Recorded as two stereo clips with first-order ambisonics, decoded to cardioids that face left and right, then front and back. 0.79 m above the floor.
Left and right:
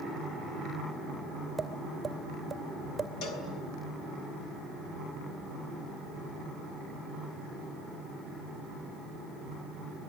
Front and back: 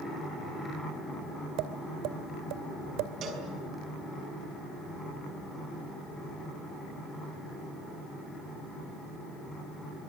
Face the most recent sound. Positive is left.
turn(degrees=125)